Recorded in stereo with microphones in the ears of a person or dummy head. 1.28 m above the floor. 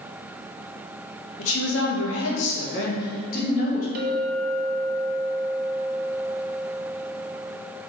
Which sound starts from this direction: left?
A woman speaking, at 1.4 s.